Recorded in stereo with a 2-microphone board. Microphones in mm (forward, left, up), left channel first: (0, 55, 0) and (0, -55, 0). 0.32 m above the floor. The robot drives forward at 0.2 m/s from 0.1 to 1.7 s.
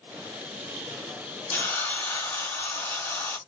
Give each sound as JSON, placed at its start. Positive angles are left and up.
{"t": 1.5, "sound": "a hiss", "side_deg": 20, "distance_m": 1.0}